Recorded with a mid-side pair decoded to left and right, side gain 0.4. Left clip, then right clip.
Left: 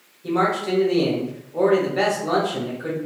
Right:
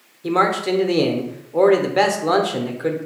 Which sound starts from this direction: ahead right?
A man speaking, at 0.2 s.